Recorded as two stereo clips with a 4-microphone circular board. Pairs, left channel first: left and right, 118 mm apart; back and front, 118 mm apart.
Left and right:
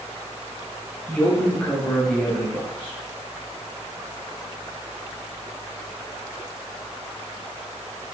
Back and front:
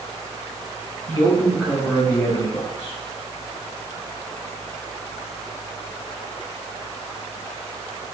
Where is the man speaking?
10° left, 1.2 m; by 3.0 s 175° left, 1.7 m.